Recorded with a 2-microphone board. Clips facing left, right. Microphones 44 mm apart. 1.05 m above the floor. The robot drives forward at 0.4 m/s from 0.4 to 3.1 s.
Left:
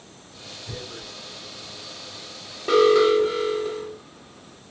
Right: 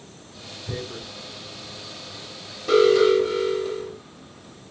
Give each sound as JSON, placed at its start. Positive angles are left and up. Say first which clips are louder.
{"t": 0.7, "sound": "tearing paper", "louder": "right 5 dB", "side_deg": -25, "distance_m": 0.7}
{"t": 2.7, "sound": "an alarm", "louder": "even", "side_deg": 25, "distance_m": 1.4}